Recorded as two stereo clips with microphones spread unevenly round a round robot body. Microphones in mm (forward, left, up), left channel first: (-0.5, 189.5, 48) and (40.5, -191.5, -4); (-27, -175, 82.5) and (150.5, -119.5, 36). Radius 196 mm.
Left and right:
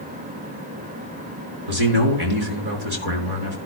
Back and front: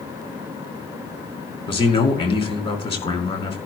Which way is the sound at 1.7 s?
100° right.